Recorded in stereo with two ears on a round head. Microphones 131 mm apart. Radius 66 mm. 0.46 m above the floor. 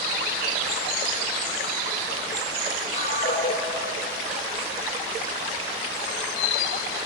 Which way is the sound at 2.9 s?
45° left (ahead or behind).